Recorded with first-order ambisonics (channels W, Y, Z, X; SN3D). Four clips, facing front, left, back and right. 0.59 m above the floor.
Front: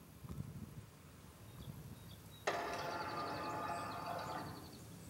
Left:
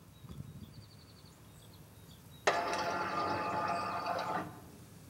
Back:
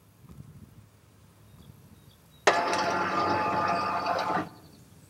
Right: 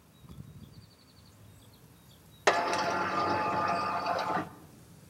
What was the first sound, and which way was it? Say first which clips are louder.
A sliding door: right 5 dB, back 16 dB; 160° right.